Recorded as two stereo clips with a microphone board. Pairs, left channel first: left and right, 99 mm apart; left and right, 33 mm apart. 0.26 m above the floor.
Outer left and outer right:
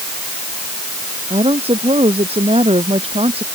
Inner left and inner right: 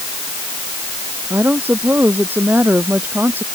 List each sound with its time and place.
1.3 s a woman speaking: 80° right